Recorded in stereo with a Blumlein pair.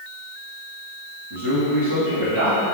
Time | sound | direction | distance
1.3 | a man speaking | 60° right | 1.7 m